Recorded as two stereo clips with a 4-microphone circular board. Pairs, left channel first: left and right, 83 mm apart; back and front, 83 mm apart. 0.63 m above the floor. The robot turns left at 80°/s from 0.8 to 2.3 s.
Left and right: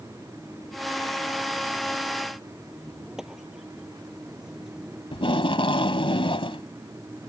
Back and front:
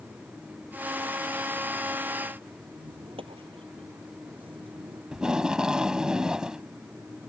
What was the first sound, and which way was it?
A squeak, 5° right.